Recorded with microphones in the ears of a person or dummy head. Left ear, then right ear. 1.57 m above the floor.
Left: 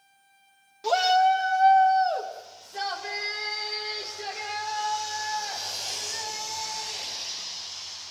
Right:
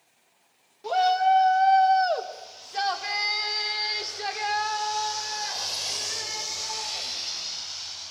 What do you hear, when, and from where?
0.8 s a shout: 25° left (ahead or behind), 1.4 m; by 8.1 s 65° right (ahead or behind), 11 m